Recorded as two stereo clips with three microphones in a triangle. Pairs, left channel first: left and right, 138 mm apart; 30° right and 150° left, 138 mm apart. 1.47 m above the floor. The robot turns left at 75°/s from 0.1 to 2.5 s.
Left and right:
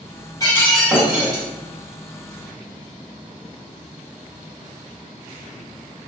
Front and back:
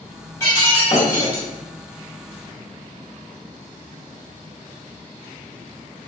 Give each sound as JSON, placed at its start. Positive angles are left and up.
{"t": 0.4, "sound": "breaking glass", "azimuth_deg": 35, "distance_m": 1.8}